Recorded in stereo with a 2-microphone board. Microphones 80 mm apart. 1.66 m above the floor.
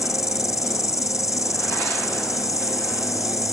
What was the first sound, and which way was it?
An insect, 50° left (ahead or behind).